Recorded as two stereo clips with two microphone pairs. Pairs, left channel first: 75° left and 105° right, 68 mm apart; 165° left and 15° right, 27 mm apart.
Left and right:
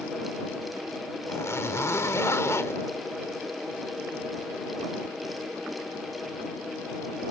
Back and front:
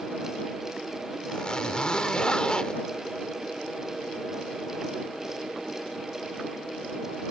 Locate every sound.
1.3 s a zipper: 110° left